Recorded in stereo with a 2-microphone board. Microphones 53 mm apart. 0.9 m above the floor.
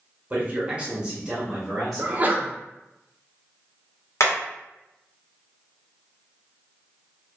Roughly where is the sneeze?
Right.